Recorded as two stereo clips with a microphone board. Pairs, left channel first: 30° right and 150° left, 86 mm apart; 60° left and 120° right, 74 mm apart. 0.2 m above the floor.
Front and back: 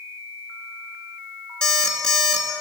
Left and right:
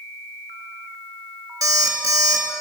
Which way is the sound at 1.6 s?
110° right.